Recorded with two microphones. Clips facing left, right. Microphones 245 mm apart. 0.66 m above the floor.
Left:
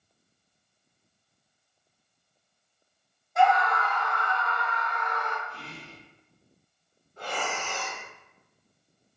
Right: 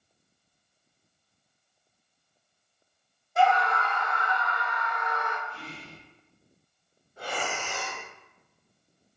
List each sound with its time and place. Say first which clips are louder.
3.4 s a scream: left 1 dB; 35° right (ahead or behind), 0.6 m; by 5.4 s 5° right (ahead or behind), 1.3 m
5.5 s whispering: right 1 dB; 20° left (ahead or behind), 1.3 m
7.2 s breathing: even; 10° right (ahead or behind), 1.0 m